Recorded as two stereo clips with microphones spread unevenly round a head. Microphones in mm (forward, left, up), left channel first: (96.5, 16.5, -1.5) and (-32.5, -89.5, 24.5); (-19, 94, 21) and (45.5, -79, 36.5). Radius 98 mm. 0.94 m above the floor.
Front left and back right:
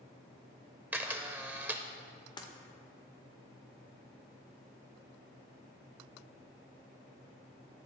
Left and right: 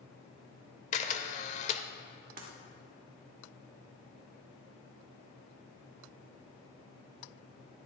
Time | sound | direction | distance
0.9 | a camera shutter | 155° left | 0.8 m
2.4 | breaking glass | 25° right | 2.0 m